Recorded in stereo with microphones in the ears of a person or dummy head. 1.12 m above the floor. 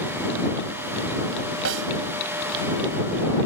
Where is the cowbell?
No cowbell in this recording.